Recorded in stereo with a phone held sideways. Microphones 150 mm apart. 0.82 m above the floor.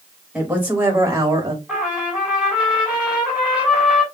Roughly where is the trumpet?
Centre.